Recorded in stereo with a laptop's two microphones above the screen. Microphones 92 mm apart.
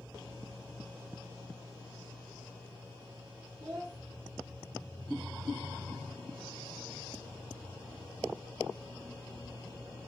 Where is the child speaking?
25° right (ahead or behind), 1.1 m.